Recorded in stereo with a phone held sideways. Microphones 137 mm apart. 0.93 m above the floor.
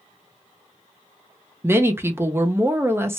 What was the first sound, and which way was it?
A woman speaking, 15° right (ahead or behind).